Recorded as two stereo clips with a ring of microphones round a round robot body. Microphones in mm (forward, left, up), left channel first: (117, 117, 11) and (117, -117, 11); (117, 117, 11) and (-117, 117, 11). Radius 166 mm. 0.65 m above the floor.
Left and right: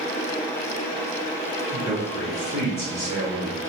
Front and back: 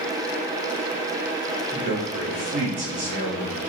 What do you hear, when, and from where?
1.7 s a man speaking: straight behind, 1.1 m; by 3.6 s 135° right, 3 m